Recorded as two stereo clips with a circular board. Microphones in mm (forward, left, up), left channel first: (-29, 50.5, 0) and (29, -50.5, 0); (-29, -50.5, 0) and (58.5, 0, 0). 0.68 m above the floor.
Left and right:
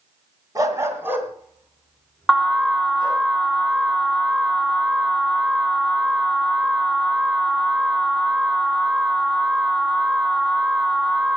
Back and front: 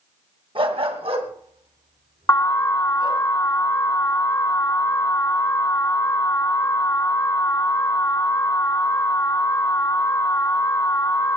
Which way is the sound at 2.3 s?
155° right.